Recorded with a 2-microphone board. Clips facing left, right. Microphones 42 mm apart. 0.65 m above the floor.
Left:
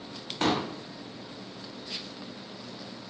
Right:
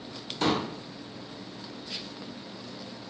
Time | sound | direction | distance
0.4 | a pop | 45° left (ahead or behind) | 1.0 m